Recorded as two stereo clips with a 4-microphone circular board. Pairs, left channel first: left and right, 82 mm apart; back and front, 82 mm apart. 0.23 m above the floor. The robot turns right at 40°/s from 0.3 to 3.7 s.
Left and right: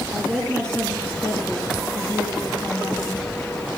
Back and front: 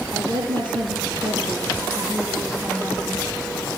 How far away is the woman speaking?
About 5.5 m.